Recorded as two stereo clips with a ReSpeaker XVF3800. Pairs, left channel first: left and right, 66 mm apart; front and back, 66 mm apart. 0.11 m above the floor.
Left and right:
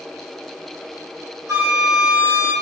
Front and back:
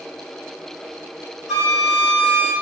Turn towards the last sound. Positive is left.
turn(degrees=-95)